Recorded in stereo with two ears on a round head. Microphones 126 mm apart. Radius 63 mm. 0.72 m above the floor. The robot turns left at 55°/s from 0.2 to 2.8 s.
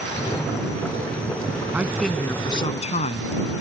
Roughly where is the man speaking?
Behind.